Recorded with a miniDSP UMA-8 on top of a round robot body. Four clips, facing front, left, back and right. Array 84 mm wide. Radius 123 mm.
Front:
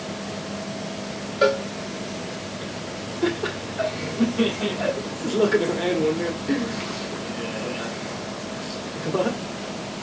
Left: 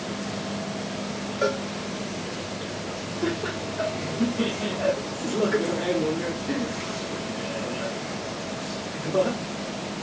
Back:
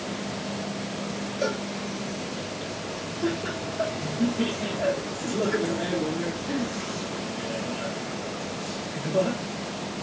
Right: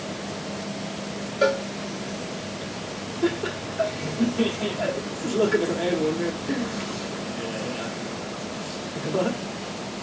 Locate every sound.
1.4 s a cowbell: 20° right, 0.6 m
3.2 s laughter: 10° right, 1.1 m